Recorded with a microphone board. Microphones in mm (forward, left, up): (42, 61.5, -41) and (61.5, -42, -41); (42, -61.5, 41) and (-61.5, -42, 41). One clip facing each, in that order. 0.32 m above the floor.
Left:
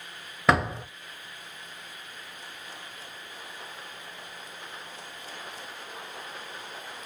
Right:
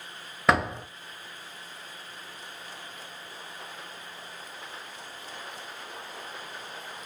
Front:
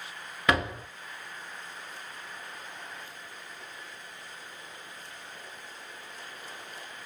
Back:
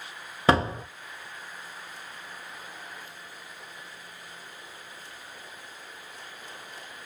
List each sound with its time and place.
0.5 s a door slam: 170° right, 0.6 m